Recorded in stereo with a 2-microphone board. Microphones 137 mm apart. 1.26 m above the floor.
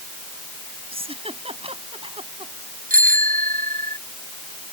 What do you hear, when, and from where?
0.9 s a giggle: 45° right (ahead or behind)
2.9 s a bicycle bell: 90° right